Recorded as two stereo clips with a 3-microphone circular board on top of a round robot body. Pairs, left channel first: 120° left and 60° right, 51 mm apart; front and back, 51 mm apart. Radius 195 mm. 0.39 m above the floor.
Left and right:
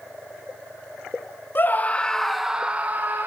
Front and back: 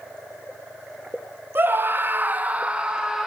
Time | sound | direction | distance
1.6 | a scream | 150° left | 1.5 m